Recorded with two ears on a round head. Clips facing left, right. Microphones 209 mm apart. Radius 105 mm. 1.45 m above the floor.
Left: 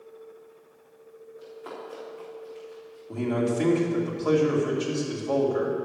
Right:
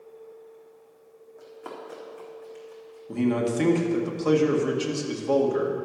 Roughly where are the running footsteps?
Right.